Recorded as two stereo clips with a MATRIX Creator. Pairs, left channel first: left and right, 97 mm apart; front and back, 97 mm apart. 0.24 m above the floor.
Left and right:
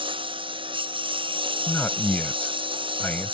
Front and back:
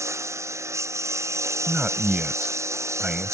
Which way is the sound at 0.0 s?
120° right.